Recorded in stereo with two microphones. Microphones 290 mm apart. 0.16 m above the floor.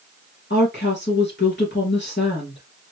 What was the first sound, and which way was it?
A woman speaking, 40° left (ahead or behind).